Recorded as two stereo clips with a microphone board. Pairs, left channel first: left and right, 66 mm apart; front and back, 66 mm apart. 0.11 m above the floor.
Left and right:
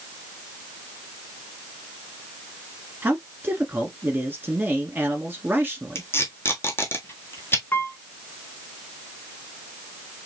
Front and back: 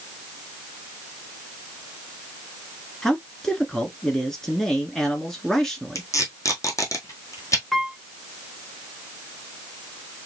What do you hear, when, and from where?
3.0 s a man speaking: 75° right, 1.2 m
6.0 s tape being pulled: 35° left, 1.5 m
7.7 s a piano: 85° left, 0.8 m